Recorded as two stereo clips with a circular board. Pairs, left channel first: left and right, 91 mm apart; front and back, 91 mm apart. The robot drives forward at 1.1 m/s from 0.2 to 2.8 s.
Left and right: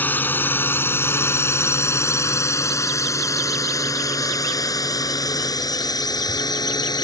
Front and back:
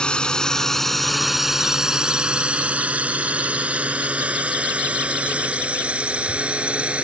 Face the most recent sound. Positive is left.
turn(degrees=105)